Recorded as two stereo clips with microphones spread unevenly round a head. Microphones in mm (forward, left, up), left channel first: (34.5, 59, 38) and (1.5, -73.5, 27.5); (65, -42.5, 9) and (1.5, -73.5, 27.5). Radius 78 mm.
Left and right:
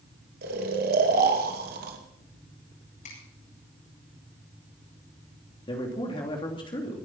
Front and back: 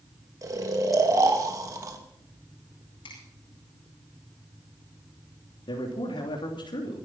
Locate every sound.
0.4 s snoring: 110° right, 2.5 m
3.0 s a finger snap: 45° left, 10 m
5.7 s a man speaking: 20° left, 3 m